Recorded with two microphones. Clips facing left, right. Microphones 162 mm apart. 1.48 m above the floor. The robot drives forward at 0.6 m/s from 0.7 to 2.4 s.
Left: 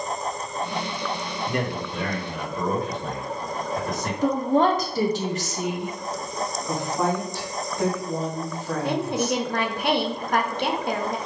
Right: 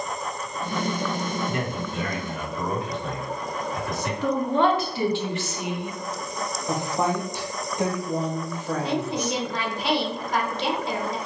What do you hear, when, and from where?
1.5 s a man speaking: 55° left (ahead or behind), 1.3 m; by 4.1 s 40° left (ahead or behind), 1.7 m
4.2 s a woman speaking: 40° left (ahead or behind), 0.9 m
6.7 s a woman speaking: 15° right (ahead or behind), 1.5 m
8.8 s a woman speaking: 55° left (ahead or behind), 0.8 m